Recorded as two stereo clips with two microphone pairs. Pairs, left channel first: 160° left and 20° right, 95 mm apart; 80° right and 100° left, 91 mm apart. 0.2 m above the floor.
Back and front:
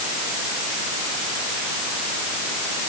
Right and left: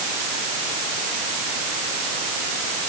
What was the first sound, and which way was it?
Only background noise.